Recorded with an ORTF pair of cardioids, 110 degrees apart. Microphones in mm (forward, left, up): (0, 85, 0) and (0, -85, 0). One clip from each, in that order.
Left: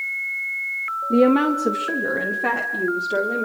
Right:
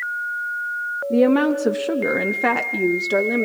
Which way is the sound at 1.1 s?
10° left.